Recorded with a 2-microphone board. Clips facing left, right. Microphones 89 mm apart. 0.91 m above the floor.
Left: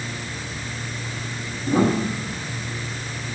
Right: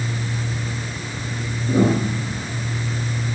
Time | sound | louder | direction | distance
1.7 | a piano | right 1 dB | 85° left | 7 m